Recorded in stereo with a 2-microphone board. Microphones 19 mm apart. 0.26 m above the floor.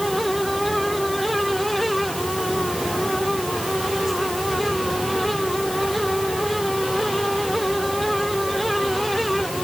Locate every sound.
Only background noise.